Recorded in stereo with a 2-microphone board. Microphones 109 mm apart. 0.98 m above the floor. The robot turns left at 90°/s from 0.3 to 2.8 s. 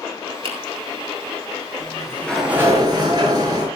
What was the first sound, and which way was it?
A finger snap, 55° right (ahead or behind).